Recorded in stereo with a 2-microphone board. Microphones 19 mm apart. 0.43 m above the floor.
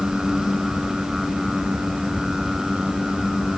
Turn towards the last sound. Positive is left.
No sound to turn to.